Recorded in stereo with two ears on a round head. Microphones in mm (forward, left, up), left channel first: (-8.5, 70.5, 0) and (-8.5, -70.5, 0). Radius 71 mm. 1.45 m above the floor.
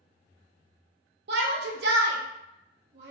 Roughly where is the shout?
Right.